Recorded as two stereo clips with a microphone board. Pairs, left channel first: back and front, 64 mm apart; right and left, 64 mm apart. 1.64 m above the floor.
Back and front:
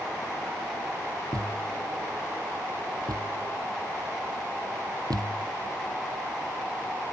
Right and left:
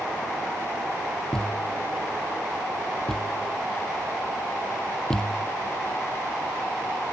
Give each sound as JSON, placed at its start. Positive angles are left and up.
{"t": 1.3, "sound": "a thud", "azimuth_deg": -10}